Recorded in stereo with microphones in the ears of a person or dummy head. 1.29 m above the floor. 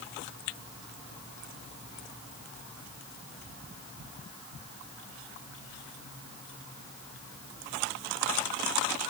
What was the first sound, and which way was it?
Only background noise.